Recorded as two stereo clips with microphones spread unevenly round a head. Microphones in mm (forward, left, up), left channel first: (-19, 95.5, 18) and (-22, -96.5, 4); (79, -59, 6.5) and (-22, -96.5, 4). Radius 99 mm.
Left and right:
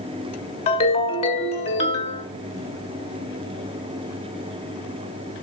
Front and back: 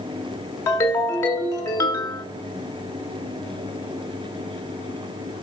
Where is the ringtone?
70° left, 1.4 m.